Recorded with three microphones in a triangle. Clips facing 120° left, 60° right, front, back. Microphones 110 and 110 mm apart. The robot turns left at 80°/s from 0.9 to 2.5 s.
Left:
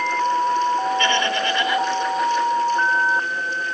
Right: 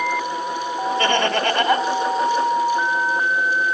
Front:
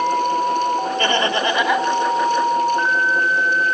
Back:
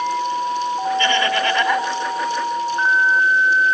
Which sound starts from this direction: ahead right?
Laughter, at 1.0 s.